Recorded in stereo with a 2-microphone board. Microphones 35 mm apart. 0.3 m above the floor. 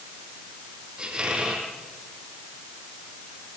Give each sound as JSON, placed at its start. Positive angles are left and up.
{"t": 1.0, "sound": "a squeak", "side_deg": -25, "distance_m": 6.0}